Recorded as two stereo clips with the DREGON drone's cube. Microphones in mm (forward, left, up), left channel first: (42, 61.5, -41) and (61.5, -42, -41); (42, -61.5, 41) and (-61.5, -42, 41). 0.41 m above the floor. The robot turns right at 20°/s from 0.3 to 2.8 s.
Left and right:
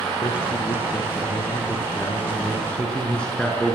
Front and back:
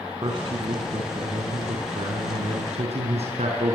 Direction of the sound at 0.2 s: 130° left.